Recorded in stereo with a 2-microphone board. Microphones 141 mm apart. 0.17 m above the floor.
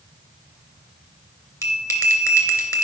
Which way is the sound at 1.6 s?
25° left (ahead or behind).